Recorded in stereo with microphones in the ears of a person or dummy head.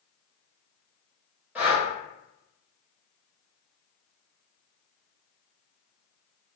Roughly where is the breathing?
Centre.